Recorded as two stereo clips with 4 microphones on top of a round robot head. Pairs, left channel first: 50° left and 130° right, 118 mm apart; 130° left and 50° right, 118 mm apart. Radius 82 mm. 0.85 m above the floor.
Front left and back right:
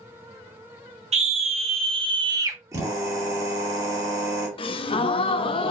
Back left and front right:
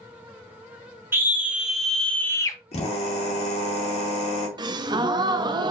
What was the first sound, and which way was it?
A scream, 120° right.